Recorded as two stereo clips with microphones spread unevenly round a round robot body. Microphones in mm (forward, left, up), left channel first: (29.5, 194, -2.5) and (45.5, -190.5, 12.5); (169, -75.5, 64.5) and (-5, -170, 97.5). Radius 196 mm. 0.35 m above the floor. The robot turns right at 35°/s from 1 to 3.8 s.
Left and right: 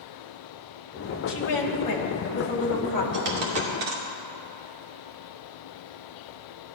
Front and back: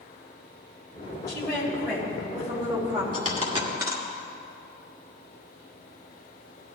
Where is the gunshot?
I don't hear a gunshot.